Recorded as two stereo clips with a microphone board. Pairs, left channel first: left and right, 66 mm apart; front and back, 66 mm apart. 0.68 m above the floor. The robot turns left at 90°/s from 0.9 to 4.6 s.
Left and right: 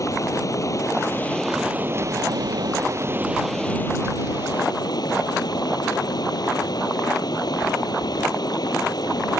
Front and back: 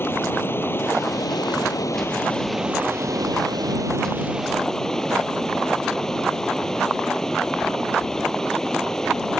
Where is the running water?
55° left; by 9.4 s 80° left.